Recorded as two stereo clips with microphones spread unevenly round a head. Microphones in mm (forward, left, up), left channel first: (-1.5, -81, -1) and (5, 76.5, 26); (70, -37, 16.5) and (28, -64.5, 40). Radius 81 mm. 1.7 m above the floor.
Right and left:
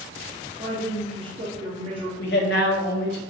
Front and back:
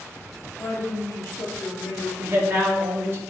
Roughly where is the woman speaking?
Ahead left.